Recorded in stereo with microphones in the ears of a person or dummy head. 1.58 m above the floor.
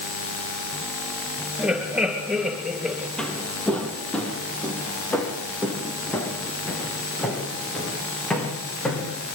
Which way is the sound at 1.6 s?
5° right (ahead or behind).